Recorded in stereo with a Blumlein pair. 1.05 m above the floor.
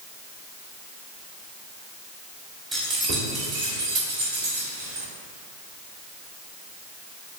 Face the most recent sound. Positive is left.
turn(degrees=-70)